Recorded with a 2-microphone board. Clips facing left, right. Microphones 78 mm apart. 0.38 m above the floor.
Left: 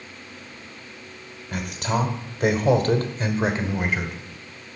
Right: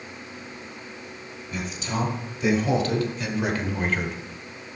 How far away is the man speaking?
About 2.5 m.